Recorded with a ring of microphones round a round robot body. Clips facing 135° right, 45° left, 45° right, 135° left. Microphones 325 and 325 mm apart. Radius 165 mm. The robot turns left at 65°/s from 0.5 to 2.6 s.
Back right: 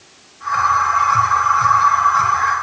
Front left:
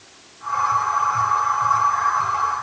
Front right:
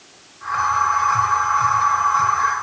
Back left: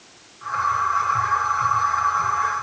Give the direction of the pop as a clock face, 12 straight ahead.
I don't hear a pop.